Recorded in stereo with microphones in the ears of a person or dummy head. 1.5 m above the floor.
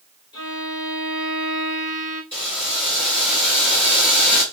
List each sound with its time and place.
0.3 s a violin: 25° left (ahead or behind), 1.8 m
2.3 s boiling: 10° left (ahead or behind), 2 m